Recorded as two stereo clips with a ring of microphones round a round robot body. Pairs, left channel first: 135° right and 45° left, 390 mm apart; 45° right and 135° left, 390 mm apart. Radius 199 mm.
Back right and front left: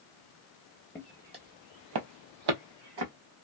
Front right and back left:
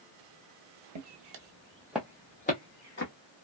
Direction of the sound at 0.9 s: 145° left.